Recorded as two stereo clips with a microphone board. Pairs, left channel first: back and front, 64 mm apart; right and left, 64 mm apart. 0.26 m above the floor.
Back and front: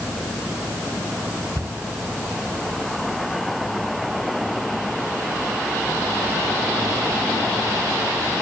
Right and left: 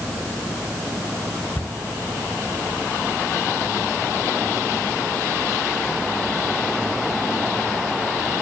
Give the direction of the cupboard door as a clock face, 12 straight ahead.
1 o'clock.